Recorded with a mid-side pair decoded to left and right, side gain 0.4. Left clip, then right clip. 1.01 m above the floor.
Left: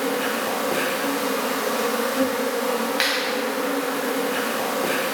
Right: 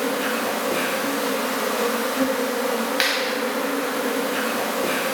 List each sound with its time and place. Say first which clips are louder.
0.0 s an insect: even; 20° left, 1.4 m
3.0 s a clap: right 1 dB; 5° right, 1.4 m